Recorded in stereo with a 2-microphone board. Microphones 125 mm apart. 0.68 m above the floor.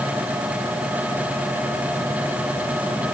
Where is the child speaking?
I don't hear a child speaking.